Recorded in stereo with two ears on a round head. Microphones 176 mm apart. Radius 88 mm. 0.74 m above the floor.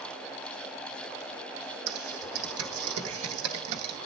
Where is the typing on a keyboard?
80° right, 0.8 m.